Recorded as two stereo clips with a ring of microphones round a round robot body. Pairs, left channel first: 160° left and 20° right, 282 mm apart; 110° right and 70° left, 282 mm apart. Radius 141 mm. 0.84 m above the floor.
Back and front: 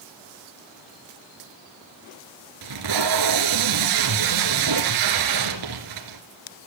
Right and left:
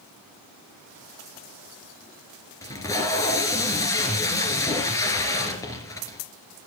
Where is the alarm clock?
I don't hear an alarm clock.